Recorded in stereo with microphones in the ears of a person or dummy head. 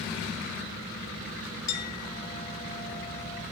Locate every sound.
1.7 s a clink: 60° left (ahead or behind), 4 m